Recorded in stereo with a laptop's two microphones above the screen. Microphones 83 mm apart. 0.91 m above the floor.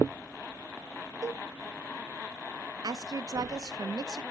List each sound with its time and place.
1.2 s a cowbell: 40° right (ahead or behind), 1.0 m
2.8 s a woman speaking: 50° right (ahead or behind), 0.6 m